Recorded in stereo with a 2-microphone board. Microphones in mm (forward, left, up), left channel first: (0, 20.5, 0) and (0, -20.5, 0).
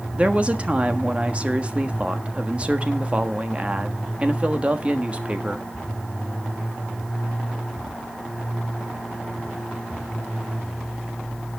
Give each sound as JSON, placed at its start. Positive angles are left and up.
{"t": 0.1, "sound": "a woman speaking", "side_deg": -30, "distance_m": 1.4}